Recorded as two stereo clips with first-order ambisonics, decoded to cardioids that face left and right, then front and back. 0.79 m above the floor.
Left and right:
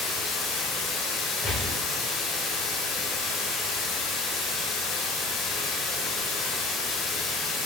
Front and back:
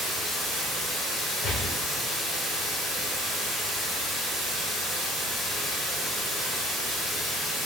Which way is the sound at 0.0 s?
85° left.